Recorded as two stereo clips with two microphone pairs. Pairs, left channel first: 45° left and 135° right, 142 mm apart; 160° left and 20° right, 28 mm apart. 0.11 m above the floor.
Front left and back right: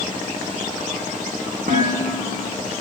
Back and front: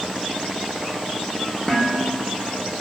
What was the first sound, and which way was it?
Dishes clattering, 125° right.